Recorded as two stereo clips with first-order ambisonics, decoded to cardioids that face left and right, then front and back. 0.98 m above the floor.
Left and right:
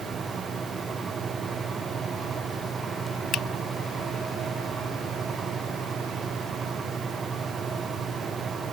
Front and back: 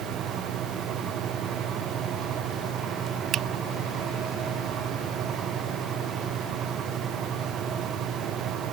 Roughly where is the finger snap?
Behind left.